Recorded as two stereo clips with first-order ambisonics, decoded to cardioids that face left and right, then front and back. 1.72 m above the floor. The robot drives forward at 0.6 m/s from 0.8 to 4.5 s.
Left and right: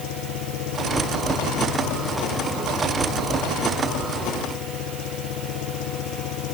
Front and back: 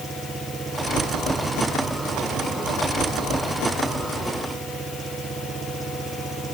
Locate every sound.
0.0 s an engine running: 105° left; by 6.5 s 110° left